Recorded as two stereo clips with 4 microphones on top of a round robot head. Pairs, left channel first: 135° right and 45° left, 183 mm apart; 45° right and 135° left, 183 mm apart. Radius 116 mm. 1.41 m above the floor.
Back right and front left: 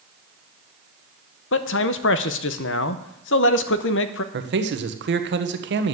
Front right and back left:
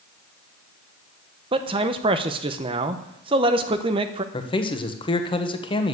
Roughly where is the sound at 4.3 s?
Ahead.